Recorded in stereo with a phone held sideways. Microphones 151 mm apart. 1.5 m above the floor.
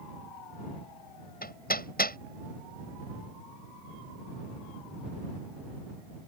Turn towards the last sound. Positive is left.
turn(degrees=80)